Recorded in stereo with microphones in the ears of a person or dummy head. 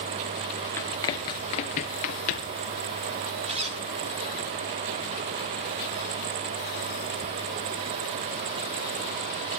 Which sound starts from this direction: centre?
Running footsteps, at 0.8 s.